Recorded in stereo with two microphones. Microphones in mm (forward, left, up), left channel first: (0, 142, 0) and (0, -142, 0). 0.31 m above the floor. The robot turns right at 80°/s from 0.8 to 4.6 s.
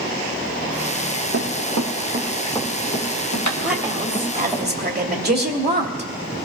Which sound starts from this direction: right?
Running footsteps, at 1.3 s.